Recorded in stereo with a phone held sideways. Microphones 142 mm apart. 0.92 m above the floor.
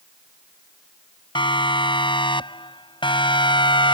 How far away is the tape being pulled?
I don't hear tape being pulled.